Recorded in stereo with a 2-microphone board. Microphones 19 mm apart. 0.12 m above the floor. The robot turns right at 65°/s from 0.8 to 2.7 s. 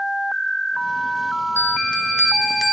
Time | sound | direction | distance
1.6 | a bell | 100° left | 1.2 m